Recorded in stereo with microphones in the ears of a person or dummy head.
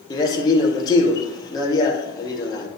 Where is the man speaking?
20° left (ahead or behind), 1.6 m.